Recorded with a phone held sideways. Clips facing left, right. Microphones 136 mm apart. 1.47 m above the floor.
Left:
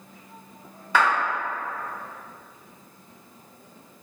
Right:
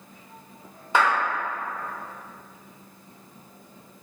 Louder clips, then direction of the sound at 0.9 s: Even; 25° right (ahead or behind).